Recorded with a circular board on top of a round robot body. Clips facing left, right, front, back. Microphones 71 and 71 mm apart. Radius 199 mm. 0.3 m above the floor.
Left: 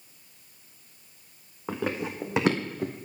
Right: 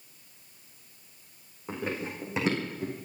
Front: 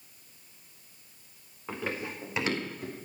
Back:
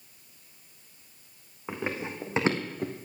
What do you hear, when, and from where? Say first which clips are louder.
1.7 s running footsteps: left 3 dB, back 2 dB; 105° left, 2 m; by 2.9 s 135° left, 1.7 m